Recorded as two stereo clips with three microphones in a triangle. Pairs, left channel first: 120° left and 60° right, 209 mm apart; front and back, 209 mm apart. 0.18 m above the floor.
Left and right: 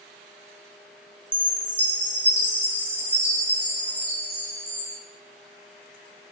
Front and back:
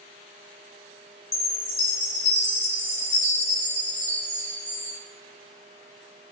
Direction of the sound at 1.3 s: 175° right.